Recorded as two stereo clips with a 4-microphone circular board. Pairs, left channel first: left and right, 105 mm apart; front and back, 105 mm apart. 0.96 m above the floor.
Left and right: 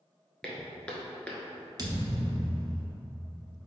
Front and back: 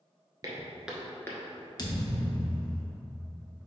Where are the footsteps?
170° left, 1.1 m; by 1.7 s 15° left, 1.2 m.